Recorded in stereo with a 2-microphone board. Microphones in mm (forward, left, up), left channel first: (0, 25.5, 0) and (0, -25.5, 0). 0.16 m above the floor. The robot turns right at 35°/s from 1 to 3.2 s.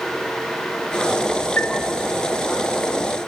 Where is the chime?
35° left (ahead or behind), 1.0 m.